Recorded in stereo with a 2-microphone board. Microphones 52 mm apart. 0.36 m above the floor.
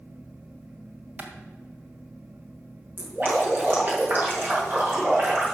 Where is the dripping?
40° right (ahead or behind), 5 m.